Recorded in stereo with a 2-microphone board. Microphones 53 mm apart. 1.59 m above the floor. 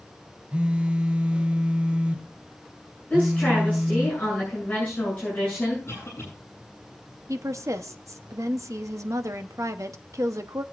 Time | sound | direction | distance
0.5 | a phone buzzing | 20° right (ahead or behind) | 0.7 m
3.1 | a woman speaking | 25° left (ahead or behind) | 8 m
5.9 | a cough | 55° left (ahead or behind) | 8 m
7.3 | a woman speaking | 75° right (ahead or behind) | 0.9 m